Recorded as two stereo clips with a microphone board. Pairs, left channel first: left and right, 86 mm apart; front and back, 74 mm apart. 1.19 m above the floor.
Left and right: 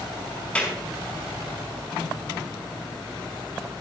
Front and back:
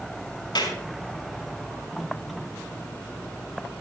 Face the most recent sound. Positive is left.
turn(degrees=15)